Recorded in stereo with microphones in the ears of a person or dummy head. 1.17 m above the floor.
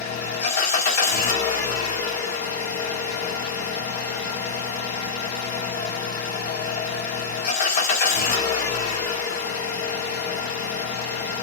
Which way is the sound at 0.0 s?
45° left (ahead or behind).